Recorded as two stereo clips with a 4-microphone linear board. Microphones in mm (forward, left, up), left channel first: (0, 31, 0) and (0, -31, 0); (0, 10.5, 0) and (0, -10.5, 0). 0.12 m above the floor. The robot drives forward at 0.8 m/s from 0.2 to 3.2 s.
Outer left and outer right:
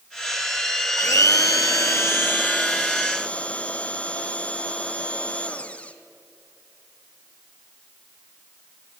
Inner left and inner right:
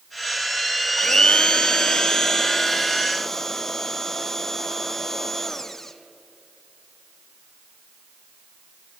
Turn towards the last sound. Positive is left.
turn(degrees=20)  # may be behind; listen again after turning